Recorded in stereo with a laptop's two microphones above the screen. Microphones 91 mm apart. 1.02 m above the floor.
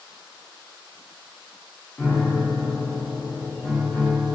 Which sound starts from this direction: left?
A piano, at 2.0 s.